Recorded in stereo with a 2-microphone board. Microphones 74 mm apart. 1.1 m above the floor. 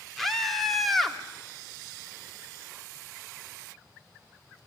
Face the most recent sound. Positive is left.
turn(degrees=0)  # may be behind; listen again after turning